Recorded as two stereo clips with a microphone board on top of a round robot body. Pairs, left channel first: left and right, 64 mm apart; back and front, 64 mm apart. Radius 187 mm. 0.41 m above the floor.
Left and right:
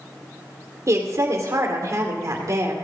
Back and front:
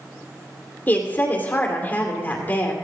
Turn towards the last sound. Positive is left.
turn(degrees=-120)